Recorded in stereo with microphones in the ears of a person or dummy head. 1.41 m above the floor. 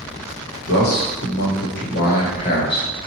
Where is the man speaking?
80° left, 1.3 m; by 2.9 s 25° left (ahead or behind), 1.3 m.